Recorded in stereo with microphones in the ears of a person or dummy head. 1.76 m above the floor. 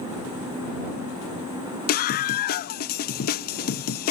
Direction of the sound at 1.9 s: 45° left (ahead or behind).